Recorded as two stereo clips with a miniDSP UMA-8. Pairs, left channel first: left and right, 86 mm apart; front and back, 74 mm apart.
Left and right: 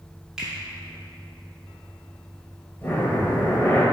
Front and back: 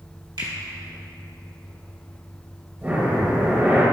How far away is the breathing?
About 1.3 m.